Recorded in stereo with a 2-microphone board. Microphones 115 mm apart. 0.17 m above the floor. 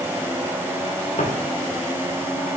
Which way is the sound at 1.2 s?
70° left (ahead or behind).